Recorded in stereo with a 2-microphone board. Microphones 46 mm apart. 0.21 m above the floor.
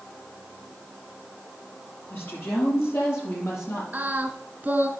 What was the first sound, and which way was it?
A woman speaking, 55° left (ahead or behind).